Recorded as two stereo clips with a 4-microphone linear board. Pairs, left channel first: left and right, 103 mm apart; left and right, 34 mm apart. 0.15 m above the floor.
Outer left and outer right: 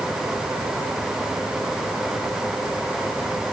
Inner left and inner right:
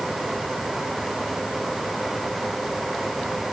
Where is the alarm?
No alarm in this recording.